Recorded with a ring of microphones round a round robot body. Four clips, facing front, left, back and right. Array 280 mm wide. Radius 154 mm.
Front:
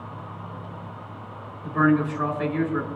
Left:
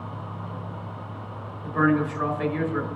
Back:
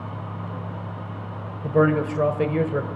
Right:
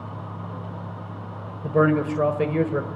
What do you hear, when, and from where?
1.6 s a man speaking: 135° right, 2.5 m